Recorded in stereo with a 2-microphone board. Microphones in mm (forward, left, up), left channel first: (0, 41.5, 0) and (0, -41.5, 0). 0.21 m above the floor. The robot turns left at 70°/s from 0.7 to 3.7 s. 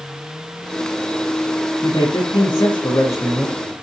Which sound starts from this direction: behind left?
A man speaking, at 1.8 s.